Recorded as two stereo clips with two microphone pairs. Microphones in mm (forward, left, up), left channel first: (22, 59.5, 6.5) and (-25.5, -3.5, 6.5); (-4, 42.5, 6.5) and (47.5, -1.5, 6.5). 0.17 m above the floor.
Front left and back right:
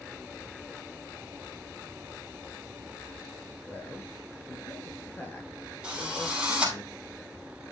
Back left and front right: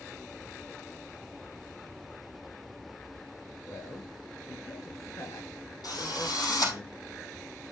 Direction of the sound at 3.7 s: 115° left.